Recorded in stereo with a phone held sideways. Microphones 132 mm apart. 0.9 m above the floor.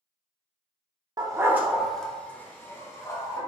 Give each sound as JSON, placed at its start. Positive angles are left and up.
{"t": 1.2, "sound": "a dog barking", "side_deg": -30, "distance_m": 0.7}